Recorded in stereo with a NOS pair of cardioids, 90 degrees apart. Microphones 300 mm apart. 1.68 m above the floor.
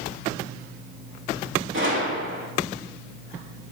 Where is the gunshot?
40° right, 4 m.